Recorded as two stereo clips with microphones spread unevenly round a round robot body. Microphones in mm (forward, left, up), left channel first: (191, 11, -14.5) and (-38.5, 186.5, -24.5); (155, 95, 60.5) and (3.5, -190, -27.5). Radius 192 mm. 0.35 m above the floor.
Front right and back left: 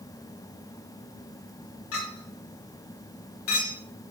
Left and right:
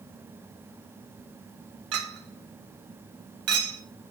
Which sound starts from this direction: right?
A clink, at 1.9 s.